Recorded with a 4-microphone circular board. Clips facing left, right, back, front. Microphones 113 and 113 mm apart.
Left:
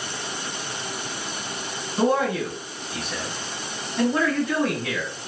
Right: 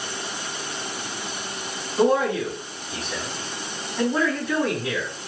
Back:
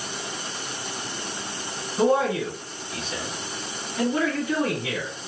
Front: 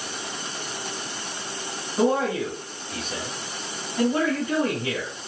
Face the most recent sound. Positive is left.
turn(degrees=0)